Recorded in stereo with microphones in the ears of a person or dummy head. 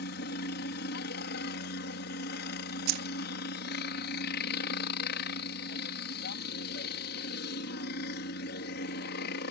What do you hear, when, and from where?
0.0 s a helicopter: 60° left (ahead or behind)
2.9 s keys jangling: 60° right (ahead or behind)